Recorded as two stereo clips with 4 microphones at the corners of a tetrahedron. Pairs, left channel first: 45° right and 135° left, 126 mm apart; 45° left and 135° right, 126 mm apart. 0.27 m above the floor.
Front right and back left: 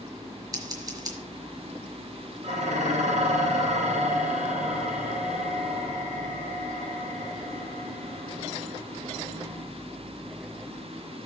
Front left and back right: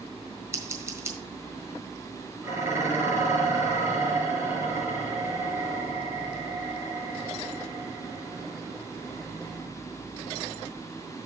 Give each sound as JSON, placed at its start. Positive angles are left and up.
{"t": 0.5, "sound": "scissors", "azimuth_deg": 170, "distance_m": 1.6}
{"t": 2.4, "sound": "dishes clattering", "azimuth_deg": 155, "distance_m": 4.0}